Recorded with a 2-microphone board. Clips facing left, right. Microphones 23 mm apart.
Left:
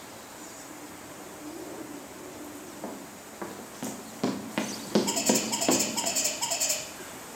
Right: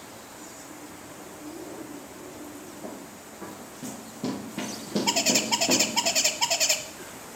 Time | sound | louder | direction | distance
2.8 | running footsteps | even | 45° left (ahead or behind) | 2 m
5.1 | a bird | right 3 dB | 40° right (ahead or behind) | 0.6 m